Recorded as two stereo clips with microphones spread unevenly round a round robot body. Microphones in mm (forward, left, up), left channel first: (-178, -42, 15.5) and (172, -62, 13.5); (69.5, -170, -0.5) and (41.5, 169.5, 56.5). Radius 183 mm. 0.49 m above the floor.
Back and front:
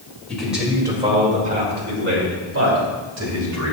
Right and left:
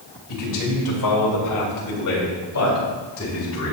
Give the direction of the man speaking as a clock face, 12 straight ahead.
3 o'clock.